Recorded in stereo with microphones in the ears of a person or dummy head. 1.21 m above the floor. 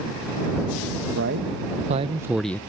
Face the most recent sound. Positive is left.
turn(degrees=15)  # may be behind; listen again after turning